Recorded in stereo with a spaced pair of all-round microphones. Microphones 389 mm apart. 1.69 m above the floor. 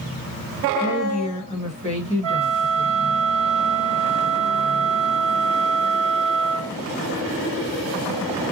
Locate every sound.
0.8 s a woman speaking: 15° left (ahead or behind), 1.5 m
2.2 s a flute: 10° left (ahead or behind), 1.8 m